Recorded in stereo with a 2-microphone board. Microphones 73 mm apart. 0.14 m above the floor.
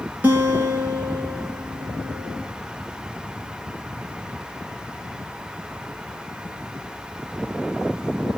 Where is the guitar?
25° right (ahead or behind), 1.7 m.